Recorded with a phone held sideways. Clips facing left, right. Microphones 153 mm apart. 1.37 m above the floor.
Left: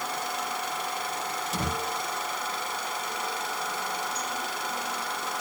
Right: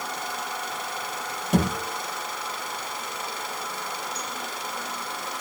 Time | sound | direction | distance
1.5 | a thud | 65° right (ahead or behind) | 5 m